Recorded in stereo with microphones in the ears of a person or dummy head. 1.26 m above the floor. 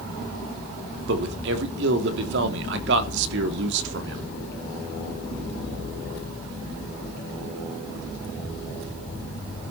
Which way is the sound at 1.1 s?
65° right (ahead or behind).